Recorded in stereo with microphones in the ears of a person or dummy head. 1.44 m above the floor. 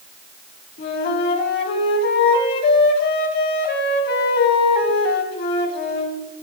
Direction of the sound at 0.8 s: 55° left (ahead or behind).